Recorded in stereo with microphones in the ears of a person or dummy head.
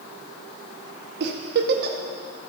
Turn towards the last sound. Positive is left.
turn(degrees=-60)  # may be behind; listen again after turning